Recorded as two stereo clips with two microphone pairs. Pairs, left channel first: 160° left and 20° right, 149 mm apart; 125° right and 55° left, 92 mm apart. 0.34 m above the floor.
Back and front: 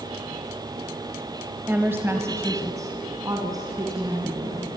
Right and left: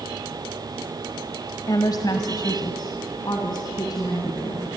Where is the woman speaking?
95° right, 1.4 m; by 4.7 s 80° right, 4 m.